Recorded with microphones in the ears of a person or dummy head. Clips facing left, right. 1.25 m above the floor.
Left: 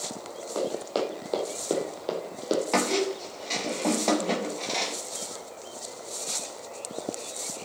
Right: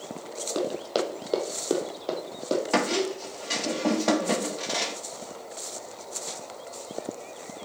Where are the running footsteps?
30° right (ahead or behind), 2.5 m; by 2.6 s 10° left (ahead or behind), 3 m.